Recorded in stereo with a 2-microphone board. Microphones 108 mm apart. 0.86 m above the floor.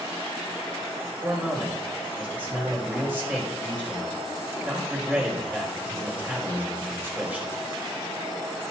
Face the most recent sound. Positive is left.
turn(degrees=-15)  # may be behind; listen again after turning